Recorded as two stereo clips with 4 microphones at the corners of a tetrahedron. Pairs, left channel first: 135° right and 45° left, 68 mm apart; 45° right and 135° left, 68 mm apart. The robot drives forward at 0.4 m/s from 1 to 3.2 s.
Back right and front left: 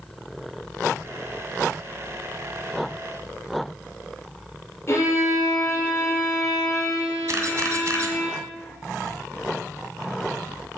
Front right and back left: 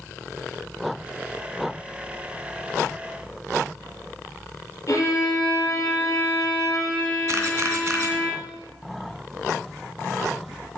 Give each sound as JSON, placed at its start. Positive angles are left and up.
{"t": 4.9, "sound": "a violin", "azimuth_deg": -90, "distance_m": 6.0}
{"t": 7.3, "sound": "a camera shutter", "azimuth_deg": 90, "distance_m": 2.0}